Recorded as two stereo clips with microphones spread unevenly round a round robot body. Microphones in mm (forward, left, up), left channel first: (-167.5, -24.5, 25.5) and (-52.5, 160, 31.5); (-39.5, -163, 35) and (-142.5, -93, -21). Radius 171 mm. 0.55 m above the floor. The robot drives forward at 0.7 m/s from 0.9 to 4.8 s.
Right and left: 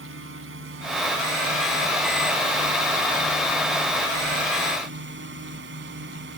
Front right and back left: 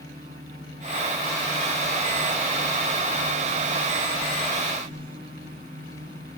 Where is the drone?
80° left; by 6.4 s 85° left.